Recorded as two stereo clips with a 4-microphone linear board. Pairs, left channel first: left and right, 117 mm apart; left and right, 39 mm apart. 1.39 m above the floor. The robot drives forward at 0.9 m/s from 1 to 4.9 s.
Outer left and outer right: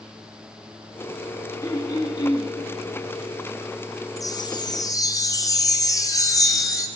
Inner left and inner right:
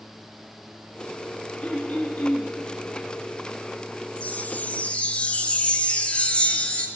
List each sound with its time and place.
1.6 s throat clearing: 30° left (ahead or behind), 1.3 m; by 2.5 s 45° left (ahead or behind), 0.9 m
4.2 s a chime: 30° left (ahead or behind), 0.6 m